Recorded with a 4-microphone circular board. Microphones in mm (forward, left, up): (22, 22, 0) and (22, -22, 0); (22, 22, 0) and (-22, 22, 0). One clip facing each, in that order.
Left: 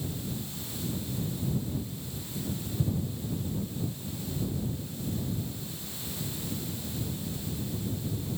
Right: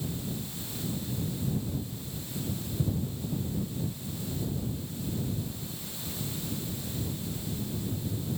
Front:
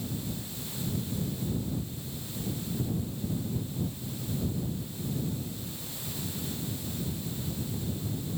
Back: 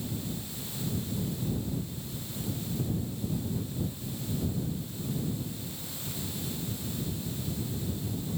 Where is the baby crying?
I don't hear a baby crying.